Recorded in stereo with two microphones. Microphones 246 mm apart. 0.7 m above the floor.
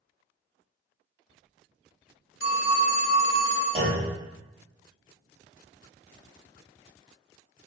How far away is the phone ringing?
About 0.6 m.